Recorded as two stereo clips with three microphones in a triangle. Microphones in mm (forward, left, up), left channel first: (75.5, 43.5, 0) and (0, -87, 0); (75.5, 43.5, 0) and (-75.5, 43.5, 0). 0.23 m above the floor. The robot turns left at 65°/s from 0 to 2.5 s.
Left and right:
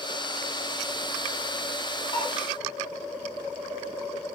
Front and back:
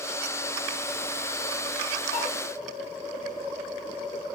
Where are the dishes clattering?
5° left, 5 m; by 2.3 s 5° right, 5 m.